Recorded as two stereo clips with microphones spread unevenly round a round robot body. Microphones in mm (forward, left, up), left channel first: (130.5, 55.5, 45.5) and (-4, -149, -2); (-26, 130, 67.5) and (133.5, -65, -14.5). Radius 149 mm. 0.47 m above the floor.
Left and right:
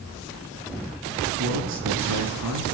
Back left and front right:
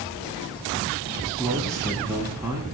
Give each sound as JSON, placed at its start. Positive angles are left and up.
{"t": 1.4, "sound": "a man speaking", "azimuth_deg": -130, "distance_m": 8.5}